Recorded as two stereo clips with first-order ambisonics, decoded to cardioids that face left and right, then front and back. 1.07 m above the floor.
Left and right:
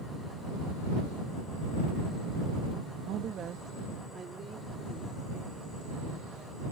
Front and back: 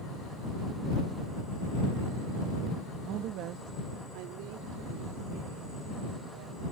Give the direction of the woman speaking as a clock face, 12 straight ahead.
5 o'clock.